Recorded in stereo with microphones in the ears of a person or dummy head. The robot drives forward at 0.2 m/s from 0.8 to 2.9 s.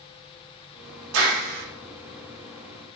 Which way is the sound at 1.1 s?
70° right (ahead or behind).